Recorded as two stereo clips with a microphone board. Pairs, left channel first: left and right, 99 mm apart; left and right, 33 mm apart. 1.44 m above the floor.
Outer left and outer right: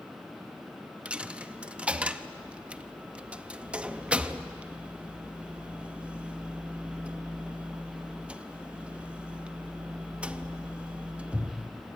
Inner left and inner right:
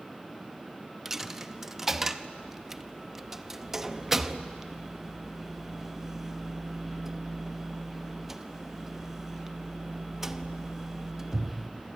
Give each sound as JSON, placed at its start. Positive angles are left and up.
{"t": 1.1, "sound": "a dropped coin", "side_deg": -15, "distance_m": 0.8}